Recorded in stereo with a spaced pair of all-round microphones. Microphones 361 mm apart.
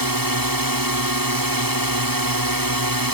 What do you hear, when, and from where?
0.0 s a drone: 60° right (ahead or behind)